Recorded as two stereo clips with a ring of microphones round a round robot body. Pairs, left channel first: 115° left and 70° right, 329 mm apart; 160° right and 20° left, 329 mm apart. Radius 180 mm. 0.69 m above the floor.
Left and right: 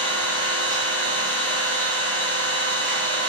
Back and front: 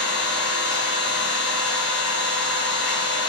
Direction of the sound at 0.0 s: 110° right.